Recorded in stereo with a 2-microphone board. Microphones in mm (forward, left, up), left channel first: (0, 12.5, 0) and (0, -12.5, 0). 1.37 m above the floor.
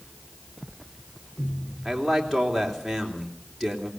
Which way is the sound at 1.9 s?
5° left (ahead or behind).